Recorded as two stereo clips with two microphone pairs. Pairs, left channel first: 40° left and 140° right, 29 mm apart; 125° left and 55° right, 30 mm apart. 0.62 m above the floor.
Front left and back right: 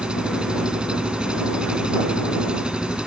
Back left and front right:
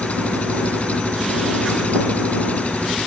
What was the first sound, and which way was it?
An engine running, 160° left.